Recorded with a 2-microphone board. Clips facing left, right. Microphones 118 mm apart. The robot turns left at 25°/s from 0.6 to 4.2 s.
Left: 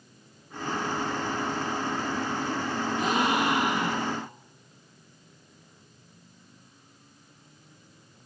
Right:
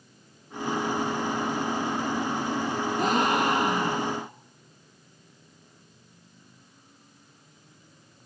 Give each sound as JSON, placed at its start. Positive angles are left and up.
{"t": 3.0, "sound": "a gasp", "azimuth_deg": -115, "distance_m": 4.5}